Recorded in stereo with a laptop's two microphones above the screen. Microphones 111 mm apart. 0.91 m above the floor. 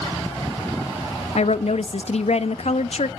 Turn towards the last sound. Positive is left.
turn(degrees=70)  # may be behind; listen again after turning